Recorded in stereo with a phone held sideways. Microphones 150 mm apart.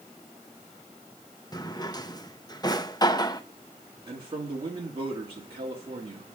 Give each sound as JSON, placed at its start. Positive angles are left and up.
{"t": 1.5, "sound": "a drawer", "side_deg": 25, "distance_m": 0.6}
{"t": 4.1, "sound": "a man speaking", "side_deg": -35, "distance_m": 2.0}